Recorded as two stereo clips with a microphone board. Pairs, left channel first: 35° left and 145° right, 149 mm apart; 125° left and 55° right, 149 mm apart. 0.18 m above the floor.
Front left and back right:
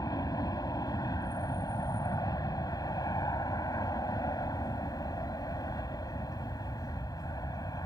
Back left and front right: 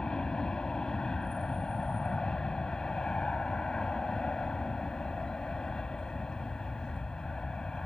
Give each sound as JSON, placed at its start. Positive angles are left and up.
{"t": 0.0, "sound": "an aircraft", "azimuth_deg": 45}